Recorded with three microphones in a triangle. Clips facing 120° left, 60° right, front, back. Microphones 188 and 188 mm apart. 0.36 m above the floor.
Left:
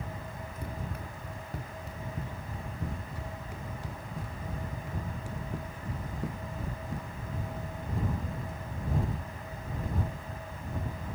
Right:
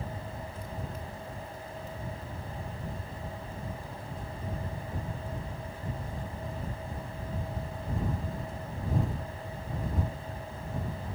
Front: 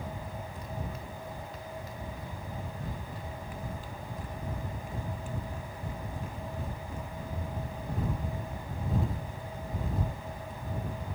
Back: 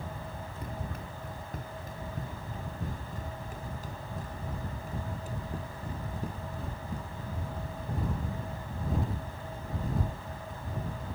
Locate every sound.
0.6 s running footsteps: 145° left; by 7.1 s 125° left